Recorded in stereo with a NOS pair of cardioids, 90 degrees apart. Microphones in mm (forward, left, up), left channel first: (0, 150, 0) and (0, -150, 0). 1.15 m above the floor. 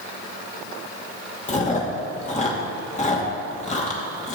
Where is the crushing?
I don't hear crushing.